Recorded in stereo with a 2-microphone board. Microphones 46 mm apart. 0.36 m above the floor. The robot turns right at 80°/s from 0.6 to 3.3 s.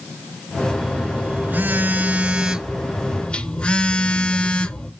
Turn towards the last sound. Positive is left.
turn(degrees=40)